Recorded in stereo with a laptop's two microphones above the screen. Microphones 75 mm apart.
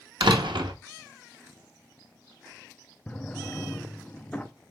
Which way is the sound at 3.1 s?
20° left (ahead or behind).